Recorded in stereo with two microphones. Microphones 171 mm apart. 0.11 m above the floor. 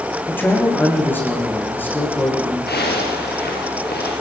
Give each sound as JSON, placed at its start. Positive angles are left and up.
{"t": 0.3, "sound": "a man speaking", "side_deg": 10, "distance_m": 8.5}
{"t": 2.7, "sound": "a zipper", "side_deg": 70, "distance_m": 8.0}